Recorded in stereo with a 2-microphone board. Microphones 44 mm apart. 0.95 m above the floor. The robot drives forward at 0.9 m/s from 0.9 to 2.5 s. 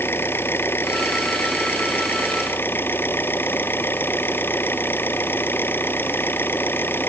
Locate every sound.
0.0 s an engine running: 60° left (ahead or behind); by 7.1 s 55° left (ahead or behind)